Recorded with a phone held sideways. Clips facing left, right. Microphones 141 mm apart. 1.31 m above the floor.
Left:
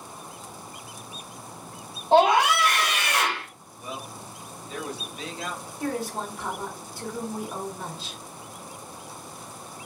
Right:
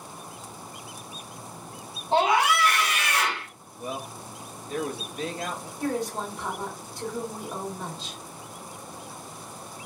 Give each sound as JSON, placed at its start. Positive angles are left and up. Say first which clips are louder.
{"t": 2.1, "sound": "a scream", "louder": "left 4 dB", "side_deg": 70, "distance_m": 1.2}
{"t": 3.8, "sound": "a man speaking", "louder": "right 3 dB", "side_deg": -50, "distance_m": 0.7}
{"t": 5.8, "sound": "a woman speaking", "louder": "right 1 dB", "side_deg": 5, "distance_m": 1.3}